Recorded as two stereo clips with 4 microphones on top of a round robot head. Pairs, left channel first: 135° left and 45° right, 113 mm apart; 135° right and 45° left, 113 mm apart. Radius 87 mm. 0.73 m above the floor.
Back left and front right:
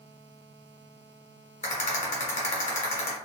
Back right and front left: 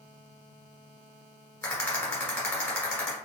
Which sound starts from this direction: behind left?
A rattle, at 1.6 s.